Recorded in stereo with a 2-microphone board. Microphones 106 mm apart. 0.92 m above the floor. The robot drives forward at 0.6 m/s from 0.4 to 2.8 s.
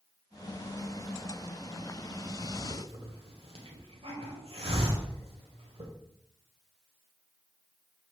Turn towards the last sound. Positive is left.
turn(degrees=-65)  # may be behind; listen again after turning